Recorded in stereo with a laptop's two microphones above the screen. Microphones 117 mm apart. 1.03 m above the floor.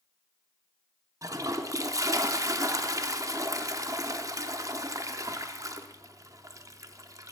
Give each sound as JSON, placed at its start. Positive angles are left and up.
{"t": 1.2, "sound": "a toilet flushing", "side_deg": -30, "distance_m": 0.6}